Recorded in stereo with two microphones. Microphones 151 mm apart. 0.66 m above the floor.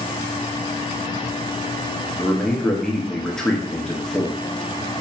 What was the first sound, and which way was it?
A man speaking, 5° left (ahead or behind).